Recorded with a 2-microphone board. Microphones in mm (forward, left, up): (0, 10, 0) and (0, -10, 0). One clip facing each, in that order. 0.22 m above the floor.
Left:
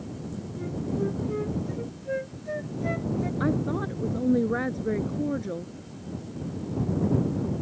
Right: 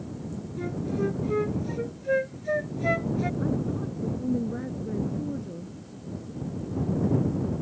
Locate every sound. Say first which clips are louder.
0.6 s a flute: right 1 dB; 35° right (ahead or behind)
3.4 s a woman speaking: left 2 dB; 55° left (ahead or behind)